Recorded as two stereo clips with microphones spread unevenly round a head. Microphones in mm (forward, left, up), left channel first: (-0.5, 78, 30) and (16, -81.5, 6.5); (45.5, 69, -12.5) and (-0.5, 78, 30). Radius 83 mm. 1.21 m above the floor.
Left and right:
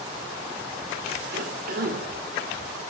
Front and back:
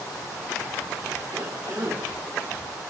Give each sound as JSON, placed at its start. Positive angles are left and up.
{"t": 1.3, "sound": "a cough", "azimuth_deg": -120, "distance_m": 4.0}